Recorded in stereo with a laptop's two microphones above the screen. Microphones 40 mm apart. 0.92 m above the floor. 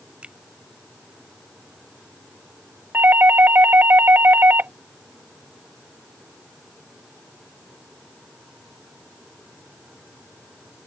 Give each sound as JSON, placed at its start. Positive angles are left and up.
{"t": 0.2, "sound": "a finger snap", "side_deg": -30}
{"t": 2.9, "sound": "a doorbell", "side_deg": -65}